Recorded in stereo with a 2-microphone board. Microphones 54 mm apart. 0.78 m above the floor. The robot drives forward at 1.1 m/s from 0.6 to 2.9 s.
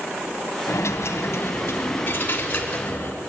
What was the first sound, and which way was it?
A dropped coin, 80° left.